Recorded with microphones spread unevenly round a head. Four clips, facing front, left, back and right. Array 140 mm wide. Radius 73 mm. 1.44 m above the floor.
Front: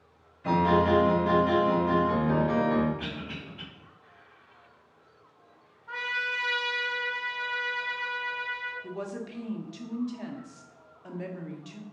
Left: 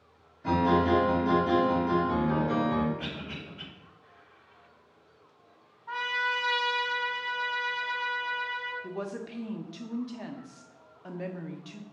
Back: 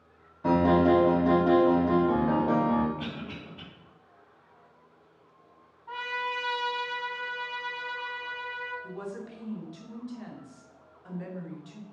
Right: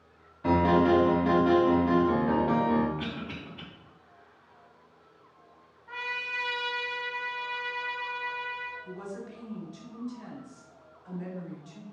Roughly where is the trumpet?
Behind left.